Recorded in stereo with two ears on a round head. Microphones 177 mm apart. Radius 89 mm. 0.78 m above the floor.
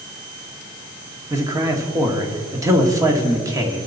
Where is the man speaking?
15° right (ahead or behind), 1.6 m.